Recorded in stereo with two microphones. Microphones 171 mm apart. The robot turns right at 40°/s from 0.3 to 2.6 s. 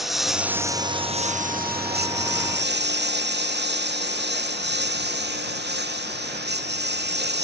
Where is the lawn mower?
Centre (ahead or behind); by 7.5 s 80° right.